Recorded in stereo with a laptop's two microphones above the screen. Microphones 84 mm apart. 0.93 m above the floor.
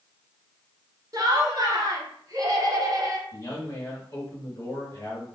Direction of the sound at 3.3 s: 40° left (ahead or behind).